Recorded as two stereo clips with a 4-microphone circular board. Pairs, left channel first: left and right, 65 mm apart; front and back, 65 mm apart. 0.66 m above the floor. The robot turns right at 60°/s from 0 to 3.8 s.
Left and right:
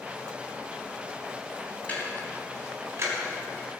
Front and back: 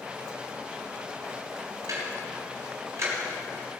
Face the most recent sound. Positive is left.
turn(degrees=-90)